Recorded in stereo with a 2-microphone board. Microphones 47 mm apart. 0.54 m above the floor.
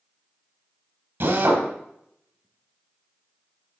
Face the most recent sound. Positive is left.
turn(degrees=-60)  # may be behind; listen again after turning